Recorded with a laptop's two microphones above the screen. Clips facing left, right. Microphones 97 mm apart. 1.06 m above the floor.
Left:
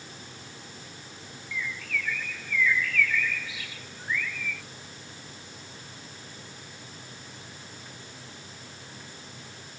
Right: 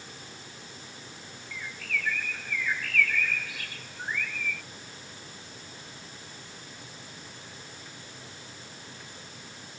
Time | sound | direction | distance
1.5 | a bird | 50° right (ahead or behind) | ?